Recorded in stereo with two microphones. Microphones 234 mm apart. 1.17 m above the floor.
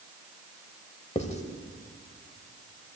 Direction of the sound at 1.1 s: 25° left (ahead or behind).